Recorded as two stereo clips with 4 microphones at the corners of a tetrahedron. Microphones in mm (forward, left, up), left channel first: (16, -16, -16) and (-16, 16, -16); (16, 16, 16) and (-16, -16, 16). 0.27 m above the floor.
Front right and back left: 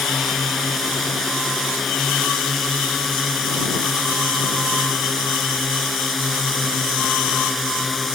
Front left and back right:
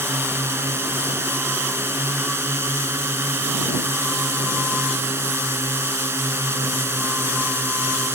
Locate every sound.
0.0 s a drone: 135° right